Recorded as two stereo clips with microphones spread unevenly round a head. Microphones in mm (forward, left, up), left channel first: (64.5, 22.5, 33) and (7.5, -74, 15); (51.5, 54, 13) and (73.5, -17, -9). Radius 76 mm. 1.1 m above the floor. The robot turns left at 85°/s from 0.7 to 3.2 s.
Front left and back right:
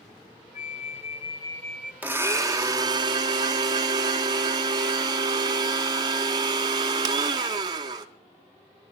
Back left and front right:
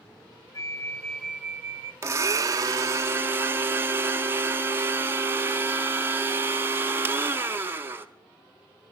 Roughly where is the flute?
Ahead left.